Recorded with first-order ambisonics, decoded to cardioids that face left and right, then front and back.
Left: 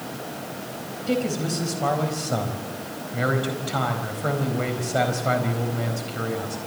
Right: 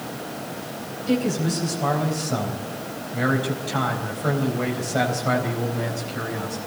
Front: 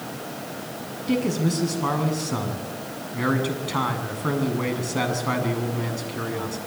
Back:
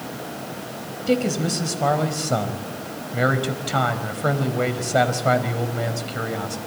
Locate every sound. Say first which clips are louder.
1.1 s a man speaking: right 1 dB, back 3 dB; 170° left, 4 m